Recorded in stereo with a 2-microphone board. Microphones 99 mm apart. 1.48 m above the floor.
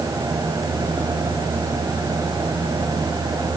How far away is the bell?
No bell in this recording.